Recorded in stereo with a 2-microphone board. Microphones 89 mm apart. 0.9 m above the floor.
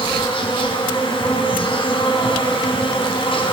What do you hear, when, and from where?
0.0 s an insect: 70° left (ahead or behind), 4 m